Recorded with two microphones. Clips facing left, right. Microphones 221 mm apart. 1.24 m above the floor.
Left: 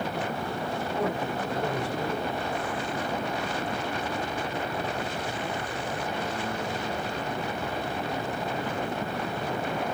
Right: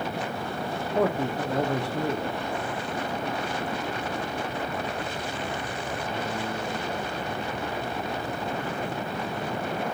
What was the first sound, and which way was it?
A man speaking, 65° right (ahead or behind).